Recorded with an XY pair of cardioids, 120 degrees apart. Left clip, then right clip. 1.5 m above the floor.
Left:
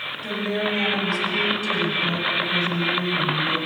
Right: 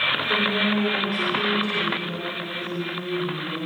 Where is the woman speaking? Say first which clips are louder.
Right 4 dB; 60° left, 8 m.